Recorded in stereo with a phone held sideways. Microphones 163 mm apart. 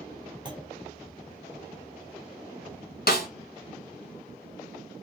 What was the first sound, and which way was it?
A clunk, 25° right (ahead or behind).